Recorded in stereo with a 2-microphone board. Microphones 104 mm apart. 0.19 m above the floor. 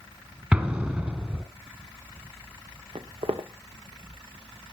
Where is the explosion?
15° right (ahead or behind), 1.9 m.